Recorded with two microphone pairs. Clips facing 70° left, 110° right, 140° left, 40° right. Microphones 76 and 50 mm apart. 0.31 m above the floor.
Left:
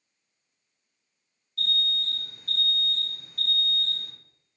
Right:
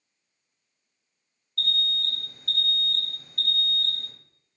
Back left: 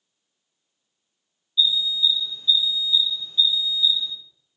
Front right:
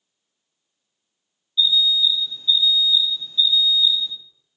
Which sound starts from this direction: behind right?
An alarm, at 1.6 s.